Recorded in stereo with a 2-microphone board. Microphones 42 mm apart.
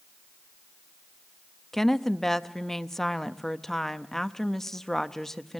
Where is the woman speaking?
10° left (ahead or behind), 0.6 m.